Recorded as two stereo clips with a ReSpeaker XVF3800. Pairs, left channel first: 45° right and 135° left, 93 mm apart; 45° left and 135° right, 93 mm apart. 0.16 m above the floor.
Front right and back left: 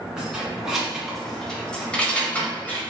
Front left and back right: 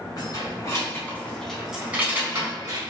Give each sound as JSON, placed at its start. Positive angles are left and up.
{"t": 0.2, "sound": "keys jangling", "azimuth_deg": 60, "distance_m": 1.1}